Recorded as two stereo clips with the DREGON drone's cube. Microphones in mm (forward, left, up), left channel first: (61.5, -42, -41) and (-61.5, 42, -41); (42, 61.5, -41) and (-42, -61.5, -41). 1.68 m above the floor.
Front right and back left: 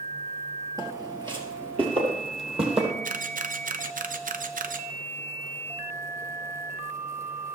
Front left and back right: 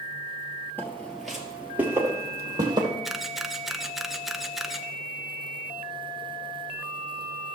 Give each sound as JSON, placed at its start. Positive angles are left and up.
{"t": 0.8, "sound": "footsteps", "azimuth_deg": 115, "distance_m": 1.8}
{"t": 3.0, "sound": "a camera shutter", "azimuth_deg": 145, "distance_m": 0.5}